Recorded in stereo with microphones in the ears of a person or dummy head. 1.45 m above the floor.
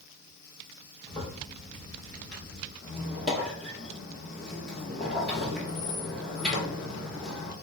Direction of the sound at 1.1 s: 5° left (ahead or behind).